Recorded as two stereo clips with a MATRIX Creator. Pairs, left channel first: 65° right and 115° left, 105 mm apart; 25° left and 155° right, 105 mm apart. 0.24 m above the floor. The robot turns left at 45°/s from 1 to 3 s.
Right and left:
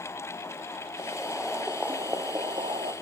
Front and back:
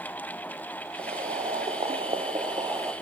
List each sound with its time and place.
1.0 s boiling: 135° right, 3 m; by 2.9 s 140° left, 3 m